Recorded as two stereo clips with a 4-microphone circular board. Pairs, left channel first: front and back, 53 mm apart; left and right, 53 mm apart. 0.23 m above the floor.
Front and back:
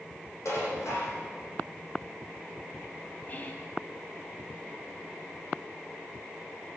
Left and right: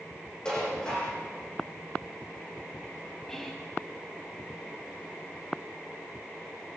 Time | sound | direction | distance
0.5 | dishes clattering | 15° left | 8 m
3.3 | whispering | 15° left | 1.9 m